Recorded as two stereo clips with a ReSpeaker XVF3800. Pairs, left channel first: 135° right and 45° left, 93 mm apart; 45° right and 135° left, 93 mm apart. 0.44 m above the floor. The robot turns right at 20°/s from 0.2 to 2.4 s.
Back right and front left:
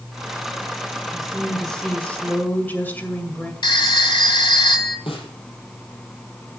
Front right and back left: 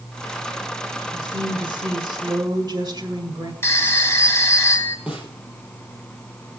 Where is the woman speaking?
130° left, 1.8 m; by 3.5 s 160° left, 1.8 m.